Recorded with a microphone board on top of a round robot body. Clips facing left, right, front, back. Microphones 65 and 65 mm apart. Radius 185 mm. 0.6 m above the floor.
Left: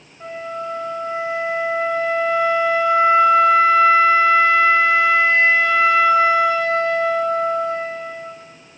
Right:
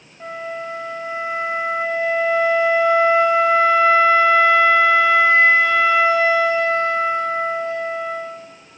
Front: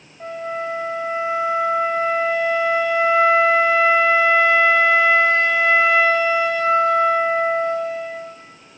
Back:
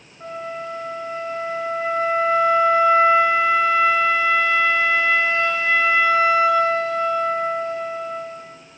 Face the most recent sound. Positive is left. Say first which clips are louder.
# left 1 dB, front 3 dB
turn(degrees=-20)